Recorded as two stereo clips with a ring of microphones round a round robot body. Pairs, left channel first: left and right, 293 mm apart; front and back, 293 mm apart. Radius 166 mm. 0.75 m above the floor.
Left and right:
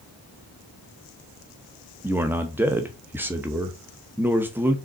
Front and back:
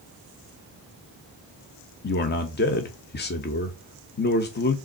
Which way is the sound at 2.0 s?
10° right.